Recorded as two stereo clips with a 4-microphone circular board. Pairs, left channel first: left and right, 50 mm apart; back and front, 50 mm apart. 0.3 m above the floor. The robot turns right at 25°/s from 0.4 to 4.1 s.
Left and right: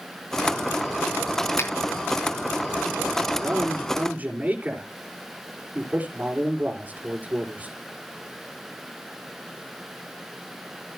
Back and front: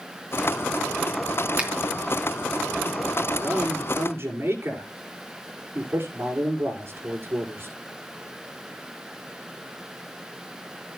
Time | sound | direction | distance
1.6 | a finger snap | 60° left | 3 m
3.4 | a man speaking | 50° right | 5 m